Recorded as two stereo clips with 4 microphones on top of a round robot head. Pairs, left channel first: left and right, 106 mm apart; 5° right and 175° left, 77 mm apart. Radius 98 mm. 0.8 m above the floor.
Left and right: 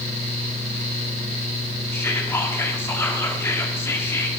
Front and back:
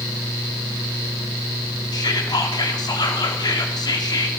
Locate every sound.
1.9 s whispering: 20° left, 2.5 m